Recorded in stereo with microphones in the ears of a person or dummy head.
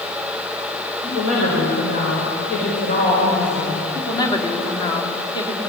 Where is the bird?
No bird in this recording.